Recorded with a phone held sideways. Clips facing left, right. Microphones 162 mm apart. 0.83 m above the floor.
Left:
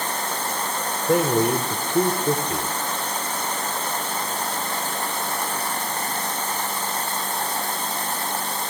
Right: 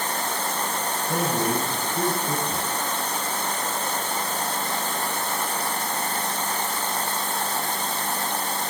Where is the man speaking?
75° left (ahead or behind), 3.5 m.